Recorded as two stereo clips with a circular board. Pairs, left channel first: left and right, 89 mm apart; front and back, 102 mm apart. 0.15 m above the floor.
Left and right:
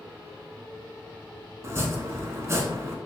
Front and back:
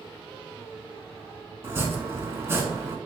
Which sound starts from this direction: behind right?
Chopping, at 1.6 s.